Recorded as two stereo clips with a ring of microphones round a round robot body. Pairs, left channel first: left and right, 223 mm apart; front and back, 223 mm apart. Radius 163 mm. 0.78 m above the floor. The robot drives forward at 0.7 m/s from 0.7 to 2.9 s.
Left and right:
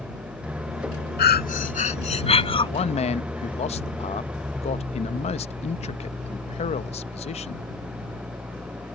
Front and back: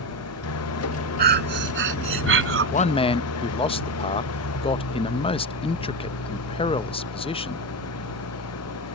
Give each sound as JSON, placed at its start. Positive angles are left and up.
{"t": 0.0, "sound": "an engine running", "azimuth_deg": -5}
{"t": 1.2, "sound": "breathing", "azimuth_deg": 135}
{"t": 2.7, "sound": "a man speaking", "azimuth_deg": 35}